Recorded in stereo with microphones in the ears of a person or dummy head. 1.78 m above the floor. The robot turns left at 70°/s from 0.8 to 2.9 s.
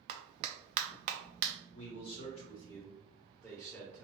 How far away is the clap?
About 0.6 m.